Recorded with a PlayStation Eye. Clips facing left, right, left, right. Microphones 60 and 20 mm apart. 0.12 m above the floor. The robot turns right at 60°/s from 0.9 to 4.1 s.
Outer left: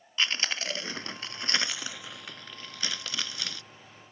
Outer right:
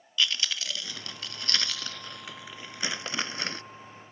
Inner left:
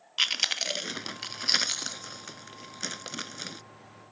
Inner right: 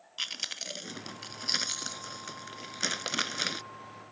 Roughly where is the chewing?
Left.